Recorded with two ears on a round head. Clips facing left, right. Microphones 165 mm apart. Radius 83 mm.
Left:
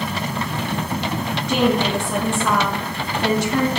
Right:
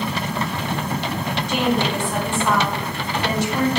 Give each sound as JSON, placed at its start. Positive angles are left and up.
{"t": 1.5, "sound": "a woman speaking", "side_deg": 65, "distance_m": 3.0}